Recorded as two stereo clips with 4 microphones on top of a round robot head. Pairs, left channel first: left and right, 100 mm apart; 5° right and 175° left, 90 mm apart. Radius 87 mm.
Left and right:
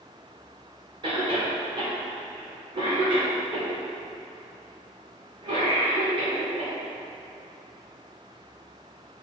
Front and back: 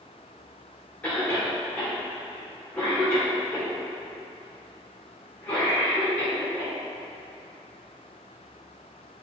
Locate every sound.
1.0 s a cough: 75° right, 1.7 m